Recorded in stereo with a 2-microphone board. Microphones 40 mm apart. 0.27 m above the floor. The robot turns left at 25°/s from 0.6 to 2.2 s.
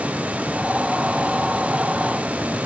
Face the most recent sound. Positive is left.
No sound to turn to.